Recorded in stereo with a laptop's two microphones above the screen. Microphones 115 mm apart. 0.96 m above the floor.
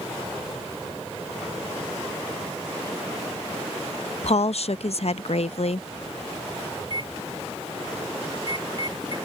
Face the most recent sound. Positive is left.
turn(degrees=-40)  # may be behind; listen again after turning